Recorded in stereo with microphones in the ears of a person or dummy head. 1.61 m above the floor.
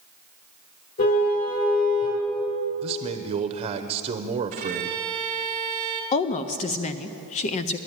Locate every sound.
1.0 s a car horn: 50° left (ahead or behind), 3.5 m
2.8 s a man speaking: 30° right (ahead or behind), 0.7 m
4.5 s a violin: 25° right (ahead or behind), 1.3 m
6.1 s a woman speaking: 30° left (ahead or behind), 0.5 m